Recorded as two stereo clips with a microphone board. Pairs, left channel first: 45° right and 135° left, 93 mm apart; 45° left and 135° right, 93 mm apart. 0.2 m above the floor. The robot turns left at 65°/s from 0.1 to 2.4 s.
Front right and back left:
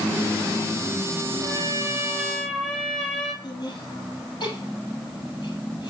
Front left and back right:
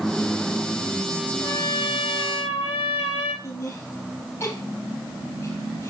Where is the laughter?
10° right, 4 m.